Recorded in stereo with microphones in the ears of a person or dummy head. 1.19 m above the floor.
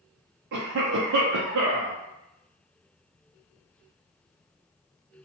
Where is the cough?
60° right (ahead or behind), 0.5 m.